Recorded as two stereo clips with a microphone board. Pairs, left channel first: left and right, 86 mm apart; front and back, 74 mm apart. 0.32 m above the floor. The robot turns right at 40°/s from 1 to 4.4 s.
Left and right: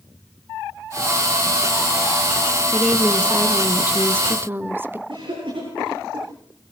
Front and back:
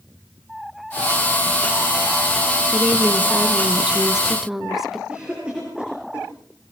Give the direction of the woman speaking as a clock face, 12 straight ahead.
6 o'clock.